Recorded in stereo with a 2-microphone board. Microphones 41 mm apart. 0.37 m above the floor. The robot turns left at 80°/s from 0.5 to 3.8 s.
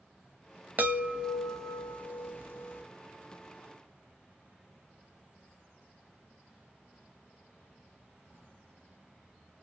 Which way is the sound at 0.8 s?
125° right.